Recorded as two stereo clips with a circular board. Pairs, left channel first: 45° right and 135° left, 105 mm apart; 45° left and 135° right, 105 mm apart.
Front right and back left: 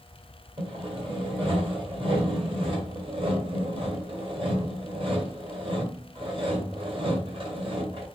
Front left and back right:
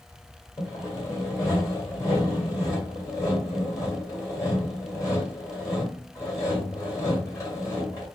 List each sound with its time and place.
0.6 s sawing: 100° left, 1.9 m